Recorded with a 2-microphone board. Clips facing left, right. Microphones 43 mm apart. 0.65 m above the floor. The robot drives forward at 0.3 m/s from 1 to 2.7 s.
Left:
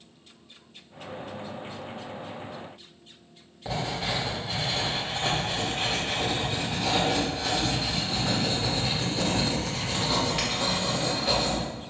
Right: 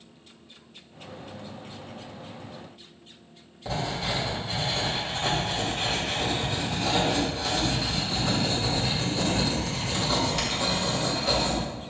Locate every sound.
3.6 s writing: 15° left (ahead or behind), 1.6 m